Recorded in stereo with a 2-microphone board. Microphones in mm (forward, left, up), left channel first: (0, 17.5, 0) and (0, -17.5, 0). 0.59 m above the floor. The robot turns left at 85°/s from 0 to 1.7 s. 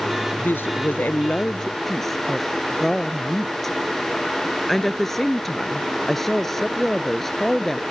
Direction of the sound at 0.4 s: 125° left.